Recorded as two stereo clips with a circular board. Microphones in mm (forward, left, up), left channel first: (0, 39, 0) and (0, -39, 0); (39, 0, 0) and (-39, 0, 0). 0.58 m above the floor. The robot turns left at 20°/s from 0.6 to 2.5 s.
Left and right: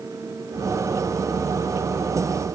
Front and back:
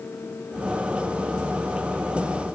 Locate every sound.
Only background noise.